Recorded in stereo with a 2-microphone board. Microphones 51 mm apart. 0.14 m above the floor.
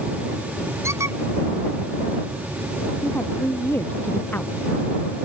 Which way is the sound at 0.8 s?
70° right (ahead or behind).